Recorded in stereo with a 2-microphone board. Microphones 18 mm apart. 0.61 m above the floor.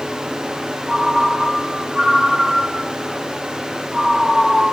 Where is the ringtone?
35° right (ahead or behind), 3 m.